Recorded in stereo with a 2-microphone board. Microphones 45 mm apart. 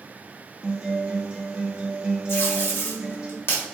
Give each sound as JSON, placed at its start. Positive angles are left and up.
{"t": 0.6, "sound": "a guitar", "side_deg": -20, "distance_m": 1.0}
{"t": 2.3, "sound": "tape being pulled", "side_deg": 75, "distance_m": 1.2}